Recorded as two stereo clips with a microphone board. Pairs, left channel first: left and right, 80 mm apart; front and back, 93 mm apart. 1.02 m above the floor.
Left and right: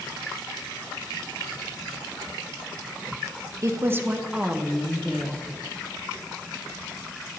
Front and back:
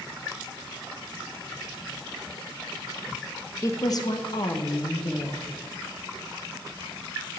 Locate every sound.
3.6 s a woman speaking: 50° right, 0.7 m; by 5.5 s 15° left, 1.3 m